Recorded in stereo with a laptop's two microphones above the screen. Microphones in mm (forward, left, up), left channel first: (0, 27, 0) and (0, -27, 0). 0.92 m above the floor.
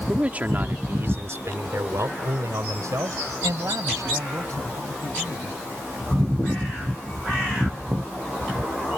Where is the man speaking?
20° right (ahead or behind); by 5.6 s 85° right.